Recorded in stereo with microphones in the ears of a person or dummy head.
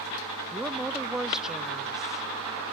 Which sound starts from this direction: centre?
A woman speaking, at 0.5 s.